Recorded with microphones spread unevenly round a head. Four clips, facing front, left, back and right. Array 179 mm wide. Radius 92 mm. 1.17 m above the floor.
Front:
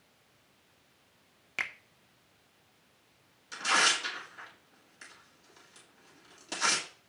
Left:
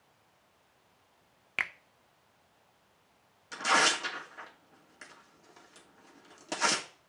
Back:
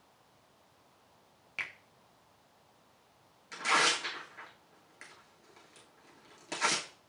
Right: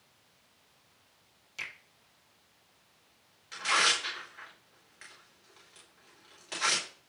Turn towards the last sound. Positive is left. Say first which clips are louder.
# left 3 dB, front 1 dB
turn(degrees=100)